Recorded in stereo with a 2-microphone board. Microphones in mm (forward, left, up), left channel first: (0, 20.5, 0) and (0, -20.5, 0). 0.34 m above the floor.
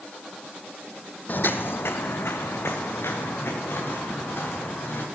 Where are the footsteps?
45° left (ahead or behind), 0.5 m; by 5.0 s 70° left (ahead or behind), 4 m.